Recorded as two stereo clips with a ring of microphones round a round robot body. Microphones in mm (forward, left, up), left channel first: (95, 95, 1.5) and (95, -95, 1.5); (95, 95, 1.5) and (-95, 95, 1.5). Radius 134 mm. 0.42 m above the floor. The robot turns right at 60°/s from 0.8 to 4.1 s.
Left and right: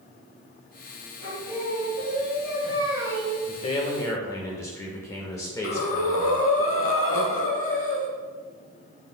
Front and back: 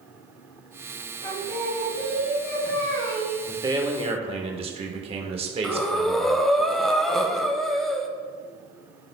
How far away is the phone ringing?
No phone ringing in this recording.